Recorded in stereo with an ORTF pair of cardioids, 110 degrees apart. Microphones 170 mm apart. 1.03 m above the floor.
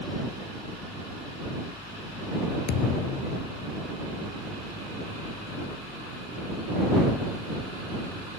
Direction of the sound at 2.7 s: 65° left.